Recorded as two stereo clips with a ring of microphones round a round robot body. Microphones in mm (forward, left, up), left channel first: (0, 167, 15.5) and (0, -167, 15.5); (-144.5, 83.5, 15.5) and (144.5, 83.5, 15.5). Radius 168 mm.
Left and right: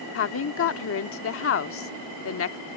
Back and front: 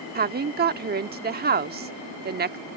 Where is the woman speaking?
50° left.